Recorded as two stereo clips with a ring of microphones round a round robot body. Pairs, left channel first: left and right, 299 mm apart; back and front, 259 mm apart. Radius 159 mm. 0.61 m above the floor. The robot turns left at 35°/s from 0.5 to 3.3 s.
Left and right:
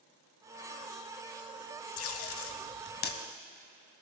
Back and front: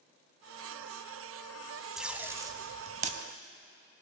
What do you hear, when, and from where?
2.0 s tape being pulled: 85° left, 0.6 m; by 3.2 s 45° left, 0.6 m